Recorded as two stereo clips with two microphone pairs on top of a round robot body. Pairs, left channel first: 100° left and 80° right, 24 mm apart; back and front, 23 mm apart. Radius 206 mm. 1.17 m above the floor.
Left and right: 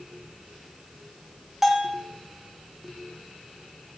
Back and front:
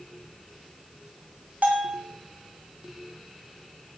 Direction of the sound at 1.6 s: Straight ahead.